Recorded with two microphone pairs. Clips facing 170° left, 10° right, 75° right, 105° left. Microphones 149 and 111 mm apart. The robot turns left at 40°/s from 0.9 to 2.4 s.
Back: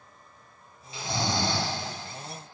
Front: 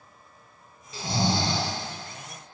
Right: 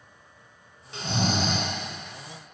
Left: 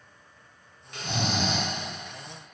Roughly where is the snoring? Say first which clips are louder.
Front 3 dB, right 3 dB; ahead right.